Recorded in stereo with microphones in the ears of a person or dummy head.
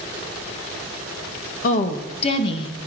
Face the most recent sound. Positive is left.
turn(degrees=30)  # may be behind; listen again after turning